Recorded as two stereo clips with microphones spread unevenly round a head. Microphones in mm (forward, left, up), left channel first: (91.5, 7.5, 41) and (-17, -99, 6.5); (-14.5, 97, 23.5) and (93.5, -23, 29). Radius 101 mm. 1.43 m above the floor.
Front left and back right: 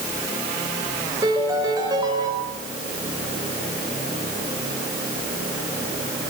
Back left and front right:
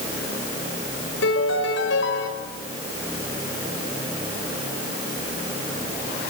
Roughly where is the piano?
Behind left.